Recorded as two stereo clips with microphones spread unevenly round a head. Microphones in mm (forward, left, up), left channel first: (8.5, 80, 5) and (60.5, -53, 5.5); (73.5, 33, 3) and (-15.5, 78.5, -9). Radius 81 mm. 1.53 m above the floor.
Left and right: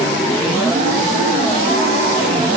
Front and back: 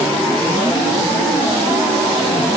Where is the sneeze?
I don't hear a sneeze.